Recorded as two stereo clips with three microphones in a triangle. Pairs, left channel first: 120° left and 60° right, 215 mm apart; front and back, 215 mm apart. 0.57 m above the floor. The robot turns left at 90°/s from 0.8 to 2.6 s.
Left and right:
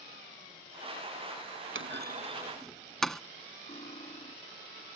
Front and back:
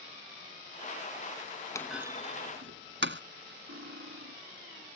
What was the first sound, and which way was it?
A clunk, 75° right.